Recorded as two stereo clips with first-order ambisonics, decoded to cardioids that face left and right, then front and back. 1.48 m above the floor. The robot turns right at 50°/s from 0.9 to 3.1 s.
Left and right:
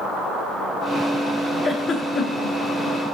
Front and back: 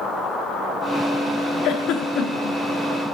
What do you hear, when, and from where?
1.6 s a giggle: 5° left, 1.4 m; by 2.6 s 55° left, 1.4 m